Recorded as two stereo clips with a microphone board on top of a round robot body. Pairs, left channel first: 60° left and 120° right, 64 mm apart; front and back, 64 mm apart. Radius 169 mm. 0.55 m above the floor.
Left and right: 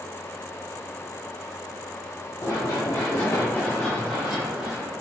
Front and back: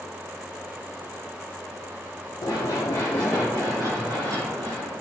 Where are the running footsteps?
20° left, 1.2 m; by 5.0 s 165° left, 2.5 m.